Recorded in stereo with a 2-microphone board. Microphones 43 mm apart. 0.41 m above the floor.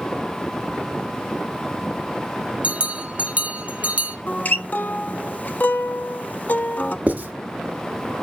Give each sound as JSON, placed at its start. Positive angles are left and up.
{"t": 2.6, "sound": "a bell", "side_deg": -30, "distance_m": 0.7}
{"t": 4.3, "sound": "a guitar", "side_deg": 40, "distance_m": 0.6}
{"t": 7.1, "sound": "writing", "side_deg": -35, "distance_m": 1.4}